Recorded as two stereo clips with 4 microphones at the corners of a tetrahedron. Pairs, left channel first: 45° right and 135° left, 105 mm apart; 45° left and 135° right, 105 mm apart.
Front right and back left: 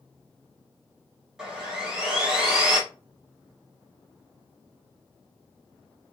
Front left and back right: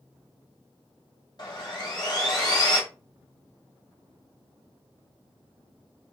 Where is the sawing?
55° left, 1.2 m.